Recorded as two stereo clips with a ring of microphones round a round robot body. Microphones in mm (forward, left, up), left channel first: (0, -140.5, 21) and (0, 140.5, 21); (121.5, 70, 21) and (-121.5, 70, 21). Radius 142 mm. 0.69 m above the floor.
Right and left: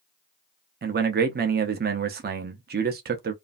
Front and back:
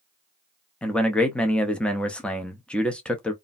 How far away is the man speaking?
About 0.5 m.